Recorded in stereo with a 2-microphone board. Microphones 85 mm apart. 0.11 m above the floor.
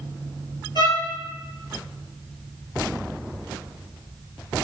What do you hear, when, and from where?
0.8 s a violin: 60° left (ahead or behind), 0.5 m